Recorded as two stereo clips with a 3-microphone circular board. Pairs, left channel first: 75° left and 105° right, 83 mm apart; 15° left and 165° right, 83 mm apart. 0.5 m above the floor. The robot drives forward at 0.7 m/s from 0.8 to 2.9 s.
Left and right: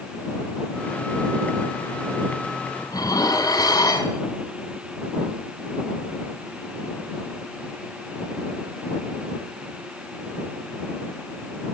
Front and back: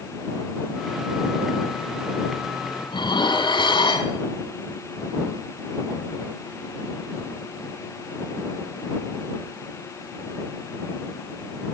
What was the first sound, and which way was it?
Dishes clattering, 35° left.